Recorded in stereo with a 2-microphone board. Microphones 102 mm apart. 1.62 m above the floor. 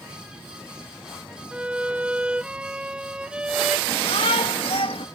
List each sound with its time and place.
1.5 s a violin: 10° right (ahead or behind)
3.9 s a shout: 75° left (ahead or behind)